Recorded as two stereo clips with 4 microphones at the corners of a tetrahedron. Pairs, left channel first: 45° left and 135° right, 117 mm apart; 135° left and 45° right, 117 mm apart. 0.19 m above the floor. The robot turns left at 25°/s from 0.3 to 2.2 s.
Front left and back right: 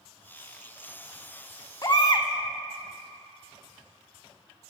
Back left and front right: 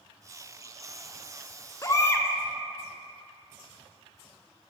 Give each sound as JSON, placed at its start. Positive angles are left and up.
{"t": 1.8, "sound": "a baby crying", "azimuth_deg": 90, "distance_m": 0.5}